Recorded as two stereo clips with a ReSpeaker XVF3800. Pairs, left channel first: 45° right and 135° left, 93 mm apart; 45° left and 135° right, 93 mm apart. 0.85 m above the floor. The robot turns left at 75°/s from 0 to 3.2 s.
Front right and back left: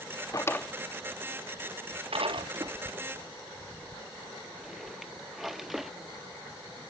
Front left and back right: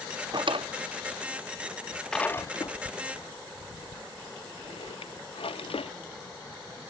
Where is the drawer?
100° right, 0.7 m; by 5.9 s 45° left, 0.7 m.